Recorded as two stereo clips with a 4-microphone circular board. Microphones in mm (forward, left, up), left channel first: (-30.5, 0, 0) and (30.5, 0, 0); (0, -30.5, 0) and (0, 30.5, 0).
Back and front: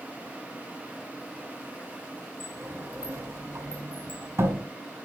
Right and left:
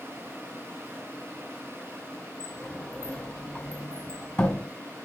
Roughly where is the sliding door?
Ahead.